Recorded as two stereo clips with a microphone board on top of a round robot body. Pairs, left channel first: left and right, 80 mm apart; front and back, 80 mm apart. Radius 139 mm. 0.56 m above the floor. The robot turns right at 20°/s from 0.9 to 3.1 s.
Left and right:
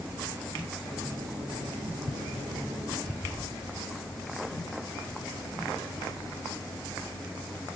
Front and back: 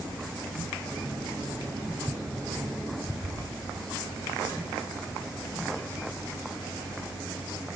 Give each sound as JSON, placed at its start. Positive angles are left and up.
{"t": 3.2, "sound": "a thud", "azimuth_deg": 150, "distance_m": 3.5}